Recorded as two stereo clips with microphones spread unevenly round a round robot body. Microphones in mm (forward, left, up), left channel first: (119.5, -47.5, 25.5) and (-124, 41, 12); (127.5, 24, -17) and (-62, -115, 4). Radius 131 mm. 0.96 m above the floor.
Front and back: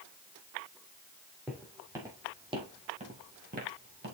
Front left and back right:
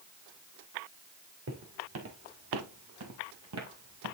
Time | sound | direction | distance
1.5 | footsteps | 115° right | 3 m